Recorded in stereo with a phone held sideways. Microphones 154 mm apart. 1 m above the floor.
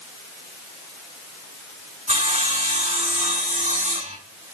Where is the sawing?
60° right (ahead or behind), 4 m.